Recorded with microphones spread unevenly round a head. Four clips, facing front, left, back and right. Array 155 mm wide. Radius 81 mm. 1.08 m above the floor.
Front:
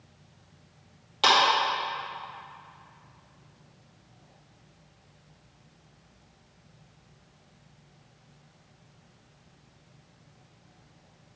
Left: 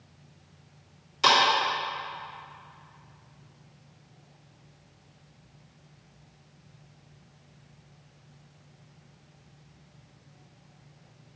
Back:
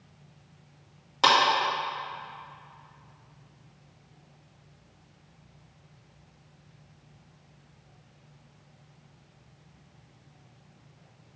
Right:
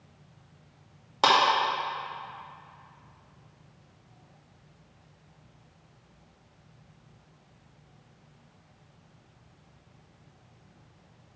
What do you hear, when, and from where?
1.2 s a clap: 105° right, 2 m